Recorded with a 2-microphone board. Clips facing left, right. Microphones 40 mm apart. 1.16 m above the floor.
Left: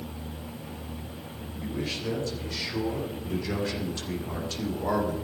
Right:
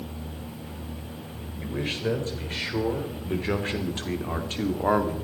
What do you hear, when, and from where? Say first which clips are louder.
1.6 s a man speaking: right 3 dB; 40° right (ahead or behind), 4 m; by 5.2 s 45° right (ahead or behind), 2 m